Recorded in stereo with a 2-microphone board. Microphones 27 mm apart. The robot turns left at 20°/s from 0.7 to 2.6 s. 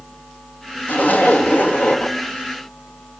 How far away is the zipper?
About 2.5 m.